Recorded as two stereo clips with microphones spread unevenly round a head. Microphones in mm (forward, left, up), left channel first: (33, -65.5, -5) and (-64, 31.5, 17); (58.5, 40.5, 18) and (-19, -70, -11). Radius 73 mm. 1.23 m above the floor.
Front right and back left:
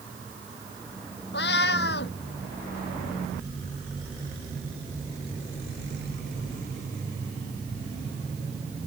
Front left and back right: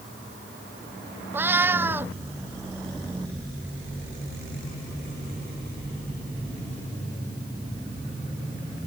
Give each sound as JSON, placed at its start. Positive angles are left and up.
{"t": 1.3, "sound": "a cat meowing", "azimuth_deg": -45}